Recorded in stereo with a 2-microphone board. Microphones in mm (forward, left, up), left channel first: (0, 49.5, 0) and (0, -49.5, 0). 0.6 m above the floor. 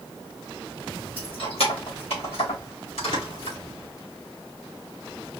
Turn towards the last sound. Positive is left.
turn(degrees=85)